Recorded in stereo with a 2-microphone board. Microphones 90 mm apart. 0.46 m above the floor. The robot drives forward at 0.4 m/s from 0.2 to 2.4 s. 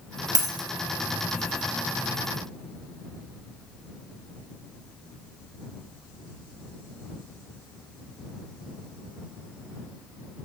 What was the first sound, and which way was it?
A dropped coin, 45° right (ahead or behind).